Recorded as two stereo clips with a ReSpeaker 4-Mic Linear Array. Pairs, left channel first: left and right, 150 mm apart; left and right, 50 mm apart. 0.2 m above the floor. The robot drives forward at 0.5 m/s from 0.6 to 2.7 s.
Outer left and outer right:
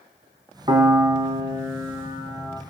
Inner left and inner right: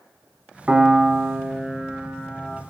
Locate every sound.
0.7 s a piano: 35° right (ahead or behind), 0.8 m; by 2.6 s 20° right (ahead or behind), 1.5 m